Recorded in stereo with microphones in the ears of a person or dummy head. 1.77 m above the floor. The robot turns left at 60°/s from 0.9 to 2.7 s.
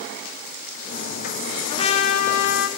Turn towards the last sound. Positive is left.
turn(degrees=90)